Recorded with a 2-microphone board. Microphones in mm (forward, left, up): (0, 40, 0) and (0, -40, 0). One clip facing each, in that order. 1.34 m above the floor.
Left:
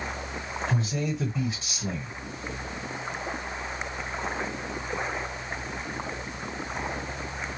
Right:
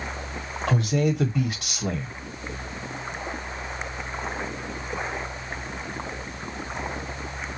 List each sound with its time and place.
0.7 s a man speaking: 75° right (ahead or behind), 1.5 m